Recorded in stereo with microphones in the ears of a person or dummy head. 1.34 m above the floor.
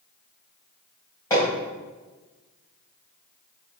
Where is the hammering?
20° left (ahead or behind), 3 m.